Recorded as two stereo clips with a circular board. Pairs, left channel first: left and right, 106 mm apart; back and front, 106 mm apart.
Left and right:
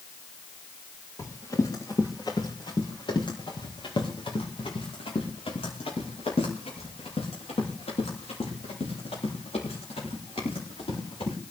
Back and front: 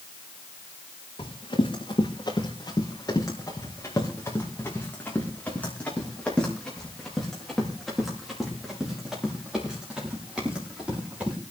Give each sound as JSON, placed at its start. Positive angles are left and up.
{"t": 1.2, "sound": "running footsteps", "azimuth_deg": 145, "distance_m": 6.0}